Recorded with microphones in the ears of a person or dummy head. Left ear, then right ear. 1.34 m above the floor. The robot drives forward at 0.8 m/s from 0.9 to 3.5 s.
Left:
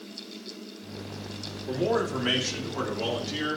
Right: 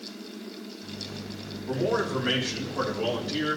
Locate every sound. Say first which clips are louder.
1.7 s a man speaking: even; 85° left, 3 m; by 3.6 s 55° left (ahead or behind), 3.5 m